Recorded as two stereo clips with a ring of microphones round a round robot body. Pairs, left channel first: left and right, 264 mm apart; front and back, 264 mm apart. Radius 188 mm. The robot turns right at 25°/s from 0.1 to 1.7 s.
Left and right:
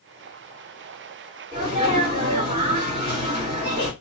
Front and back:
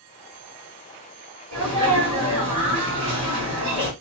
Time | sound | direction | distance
1.5 | a sneeze | 170° right | 2 m